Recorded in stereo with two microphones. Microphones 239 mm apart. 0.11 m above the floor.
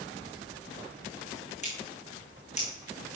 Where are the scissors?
30° left (ahead or behind), 4 m.